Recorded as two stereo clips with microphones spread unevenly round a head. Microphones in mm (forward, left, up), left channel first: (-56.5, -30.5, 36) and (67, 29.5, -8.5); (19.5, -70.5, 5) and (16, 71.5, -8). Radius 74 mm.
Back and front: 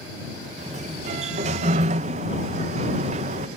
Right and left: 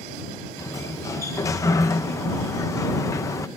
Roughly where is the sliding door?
Ahead right.